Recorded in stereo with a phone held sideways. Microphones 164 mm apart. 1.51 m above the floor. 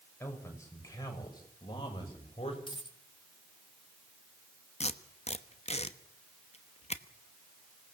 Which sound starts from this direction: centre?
A man speaking, at 0.2 s.